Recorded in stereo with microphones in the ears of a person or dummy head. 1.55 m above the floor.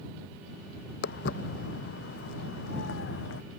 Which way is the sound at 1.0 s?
60° left (ahead or behind).